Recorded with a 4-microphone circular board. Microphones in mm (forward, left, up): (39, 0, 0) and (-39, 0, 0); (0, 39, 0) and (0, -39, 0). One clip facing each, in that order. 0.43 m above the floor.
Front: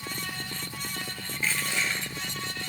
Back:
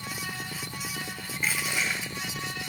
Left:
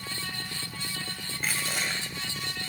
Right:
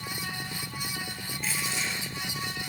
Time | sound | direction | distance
1.4 | crushing | 105° left | 2 m